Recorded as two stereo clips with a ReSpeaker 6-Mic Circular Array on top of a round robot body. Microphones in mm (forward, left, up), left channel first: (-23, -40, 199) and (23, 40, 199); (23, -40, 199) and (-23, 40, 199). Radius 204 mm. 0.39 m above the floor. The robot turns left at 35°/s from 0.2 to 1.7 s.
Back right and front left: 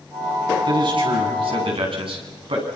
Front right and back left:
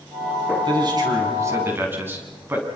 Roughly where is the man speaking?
Left.